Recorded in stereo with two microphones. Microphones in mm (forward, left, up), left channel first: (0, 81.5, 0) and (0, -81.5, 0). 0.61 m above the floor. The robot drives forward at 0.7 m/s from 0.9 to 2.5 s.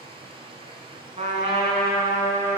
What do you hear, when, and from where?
0.0 s running water: 35° right (ahead or behind), 0.9 m; by 2.6 s 15° right (ahead or behind), 1.8 m
1.2 s a trumpet: 45° right (ahead or behind), 1.0 m; by 2.6 s 25° right (ahead or behind), 1.8 m